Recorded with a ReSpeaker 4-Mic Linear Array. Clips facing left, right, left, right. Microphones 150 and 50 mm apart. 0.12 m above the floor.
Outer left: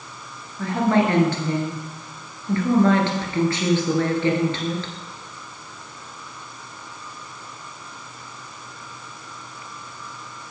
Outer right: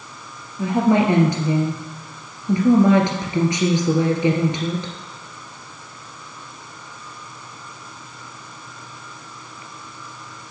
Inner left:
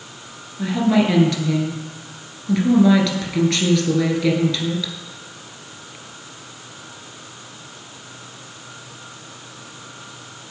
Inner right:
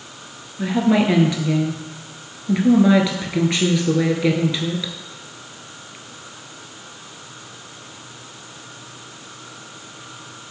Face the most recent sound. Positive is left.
turn(degrees=-15)  # may be behind; listen again after turning